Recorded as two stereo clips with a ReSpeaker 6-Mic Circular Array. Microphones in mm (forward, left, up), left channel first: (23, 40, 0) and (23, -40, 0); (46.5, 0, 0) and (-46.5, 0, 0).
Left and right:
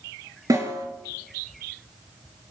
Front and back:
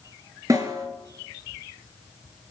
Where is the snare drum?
130° right, 5 m.